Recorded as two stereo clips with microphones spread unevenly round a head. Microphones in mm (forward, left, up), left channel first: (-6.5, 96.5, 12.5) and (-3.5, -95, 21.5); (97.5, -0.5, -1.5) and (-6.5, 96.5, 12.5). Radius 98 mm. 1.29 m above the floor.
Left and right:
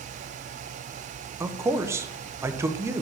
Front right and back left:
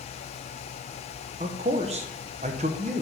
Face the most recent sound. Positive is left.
turn(degrees=-165)